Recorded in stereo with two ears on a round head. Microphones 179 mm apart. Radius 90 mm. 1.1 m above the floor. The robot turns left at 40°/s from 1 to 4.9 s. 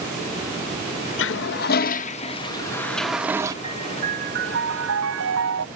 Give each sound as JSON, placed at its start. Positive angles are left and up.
{"t": 1.2, "sound": "a toilet flushing", "azimuth_deg": 75}
{"t": 3.6, "sound": "a piano", "azimuth_deg": -20}